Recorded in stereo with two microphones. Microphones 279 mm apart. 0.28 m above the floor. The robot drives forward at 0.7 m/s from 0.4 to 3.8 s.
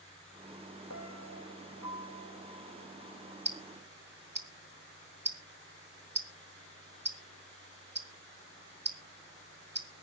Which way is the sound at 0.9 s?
80° left.